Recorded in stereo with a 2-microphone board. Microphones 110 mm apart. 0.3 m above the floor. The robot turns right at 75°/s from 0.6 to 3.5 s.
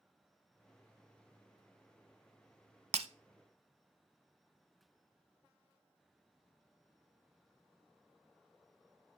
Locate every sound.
2.9 s breaking glass: 75° right (ahead or behind), 0.6 m; by 3.1 s 70° right (ahead or behind), 0.6 m